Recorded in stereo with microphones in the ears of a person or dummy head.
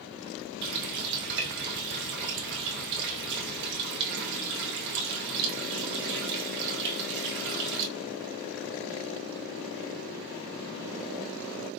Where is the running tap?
60° right (ahead or behind), 1.0 m.